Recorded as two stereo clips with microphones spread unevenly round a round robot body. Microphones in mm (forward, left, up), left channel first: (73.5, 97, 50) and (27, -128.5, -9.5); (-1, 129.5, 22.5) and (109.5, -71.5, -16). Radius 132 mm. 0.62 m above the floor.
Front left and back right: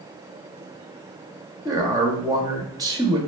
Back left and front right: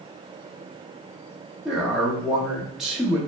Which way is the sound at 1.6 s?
130° right.